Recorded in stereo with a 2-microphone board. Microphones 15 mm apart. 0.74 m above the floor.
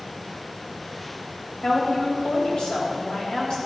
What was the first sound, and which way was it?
A woman speaking, 80° left.